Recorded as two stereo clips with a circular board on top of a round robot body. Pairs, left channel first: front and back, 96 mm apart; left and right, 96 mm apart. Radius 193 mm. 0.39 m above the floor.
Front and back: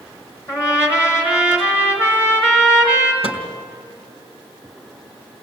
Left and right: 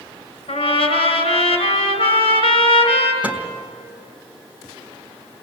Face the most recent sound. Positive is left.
turn(degrees=-10)